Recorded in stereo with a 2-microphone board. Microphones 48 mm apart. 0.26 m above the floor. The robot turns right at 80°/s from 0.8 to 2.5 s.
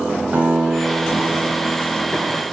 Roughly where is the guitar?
Behind right.